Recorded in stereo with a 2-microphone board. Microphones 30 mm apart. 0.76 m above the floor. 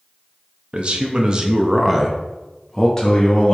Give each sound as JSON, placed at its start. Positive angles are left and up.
{"t": 0.7, "sound": "a man speaking", "side_deg": -40, "distance_m": 1.0}